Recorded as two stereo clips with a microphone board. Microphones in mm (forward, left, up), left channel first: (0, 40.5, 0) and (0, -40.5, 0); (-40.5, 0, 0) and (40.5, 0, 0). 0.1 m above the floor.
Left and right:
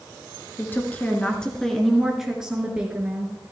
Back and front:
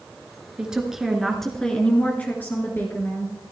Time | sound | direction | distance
0.6 | a woman speaking | 65° left | 1.6 m